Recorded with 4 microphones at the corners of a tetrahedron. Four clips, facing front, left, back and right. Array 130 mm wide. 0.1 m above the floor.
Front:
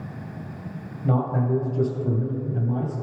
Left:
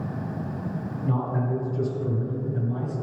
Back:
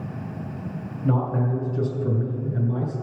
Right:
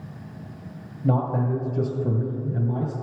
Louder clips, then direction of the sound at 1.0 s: Right 4 dB, even; 100° right.